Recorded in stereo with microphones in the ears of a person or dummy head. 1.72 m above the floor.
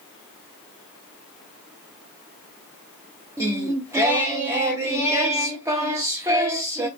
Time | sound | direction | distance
3.4 | singing | 15° right (ahead or behind) | 0.7 m